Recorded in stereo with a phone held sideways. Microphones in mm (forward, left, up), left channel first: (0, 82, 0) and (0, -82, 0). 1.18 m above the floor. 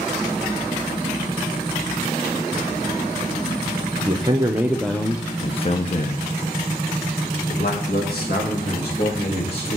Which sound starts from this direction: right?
A man speaking, at 4.1 s.